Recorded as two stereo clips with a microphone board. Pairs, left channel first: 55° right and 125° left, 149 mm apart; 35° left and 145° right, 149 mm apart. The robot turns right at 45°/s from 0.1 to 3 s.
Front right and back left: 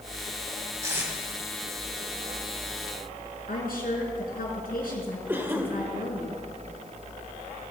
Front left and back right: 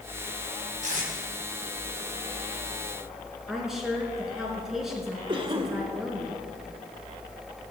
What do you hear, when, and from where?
0.8 s tape being pulled: 170° right, 3 m; by 1.1 s 155° right, 3 m
3.5 s a woman speaking: 60° right, 4 m
5.3 s a cough: 170° right, 1.2 m